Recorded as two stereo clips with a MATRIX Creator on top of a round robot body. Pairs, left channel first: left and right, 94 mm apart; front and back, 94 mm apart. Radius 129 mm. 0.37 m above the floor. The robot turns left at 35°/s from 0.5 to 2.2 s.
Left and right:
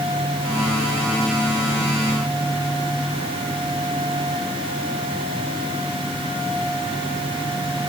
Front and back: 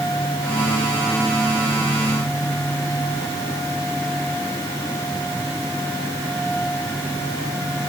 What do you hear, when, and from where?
Only background noise.